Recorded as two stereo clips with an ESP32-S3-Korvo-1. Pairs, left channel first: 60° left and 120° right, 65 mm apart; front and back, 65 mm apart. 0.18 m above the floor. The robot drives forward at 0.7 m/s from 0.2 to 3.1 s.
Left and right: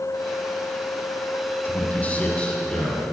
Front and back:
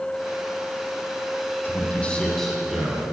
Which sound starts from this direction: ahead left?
A man speaking, at 1.6 s.